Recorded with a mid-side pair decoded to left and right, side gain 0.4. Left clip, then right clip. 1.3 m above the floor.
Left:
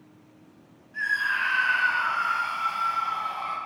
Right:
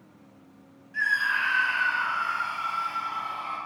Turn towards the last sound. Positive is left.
turn(degrees=60)